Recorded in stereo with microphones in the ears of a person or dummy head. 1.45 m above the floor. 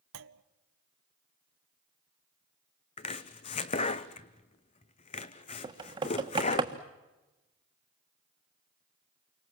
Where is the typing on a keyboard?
20° right (ahead or behind), 1.3 m.